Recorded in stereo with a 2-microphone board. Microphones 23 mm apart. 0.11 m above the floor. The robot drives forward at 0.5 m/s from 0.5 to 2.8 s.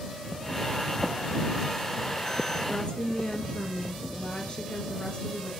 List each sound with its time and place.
2.7 s a woman speaking: 45° left (ahead or behind), 2.5 m